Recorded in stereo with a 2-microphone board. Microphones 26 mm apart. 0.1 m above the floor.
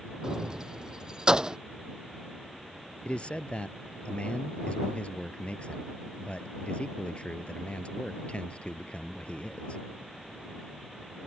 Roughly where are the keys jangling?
Right.